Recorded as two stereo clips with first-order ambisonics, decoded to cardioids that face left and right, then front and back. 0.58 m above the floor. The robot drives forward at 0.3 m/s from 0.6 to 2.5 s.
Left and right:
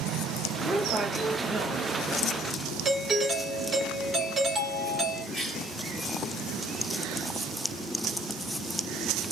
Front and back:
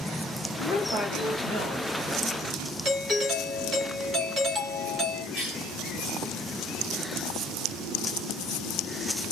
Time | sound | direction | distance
0.6 | a woman speaking | 140° right | 1.7 m
2.9 | a doorbell | 140° right | 1.1 m
5.3 | a cough | 175° right | 2 m